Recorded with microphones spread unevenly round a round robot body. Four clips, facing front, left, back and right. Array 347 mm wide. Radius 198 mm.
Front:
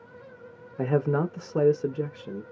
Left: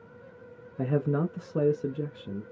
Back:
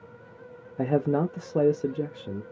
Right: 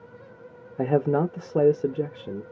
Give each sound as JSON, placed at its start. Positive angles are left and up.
{"t": 0.8, "sound": "a man speaking", "azimuth_deg": -105, "distance_m": 0.5}